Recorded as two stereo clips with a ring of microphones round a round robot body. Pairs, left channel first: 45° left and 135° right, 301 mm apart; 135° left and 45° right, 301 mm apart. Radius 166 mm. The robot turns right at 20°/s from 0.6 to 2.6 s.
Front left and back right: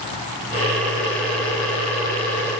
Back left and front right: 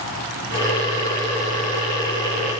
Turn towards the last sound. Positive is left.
No sound to turn to.